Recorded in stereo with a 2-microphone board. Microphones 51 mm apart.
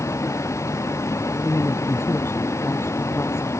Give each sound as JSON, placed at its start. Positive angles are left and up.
{"t": 0.0, "sound": "a vehicle", "side_deg": 75}
{"t": 1.2, "sound": "a woman speaking", "side_deg": 55}